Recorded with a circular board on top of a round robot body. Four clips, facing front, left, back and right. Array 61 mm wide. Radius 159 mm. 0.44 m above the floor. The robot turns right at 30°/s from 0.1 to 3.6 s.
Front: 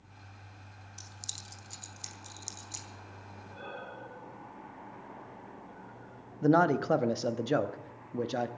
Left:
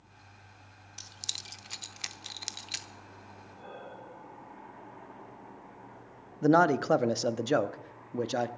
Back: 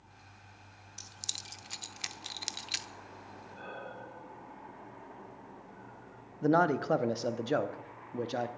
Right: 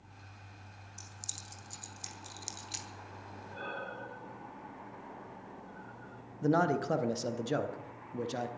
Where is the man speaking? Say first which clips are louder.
Left 6 dB, front 2 dB; 85° left, 1.0 m.